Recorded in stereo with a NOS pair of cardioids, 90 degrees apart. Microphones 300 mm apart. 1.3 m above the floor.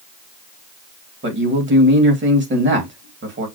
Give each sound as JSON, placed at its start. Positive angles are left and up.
{"t": 1.2, "sound": "a man speaking", "azimuth_deg": -40, "distance_m": 2.5}